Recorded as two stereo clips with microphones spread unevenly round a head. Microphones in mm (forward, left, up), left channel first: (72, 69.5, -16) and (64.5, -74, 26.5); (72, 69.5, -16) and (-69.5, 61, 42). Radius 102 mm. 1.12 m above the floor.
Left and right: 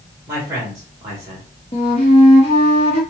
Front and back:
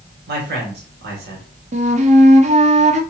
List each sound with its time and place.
0.3 s a man speaking: 170° right, 3.5 m
1.7 s a flute: 150° left, 1.2 m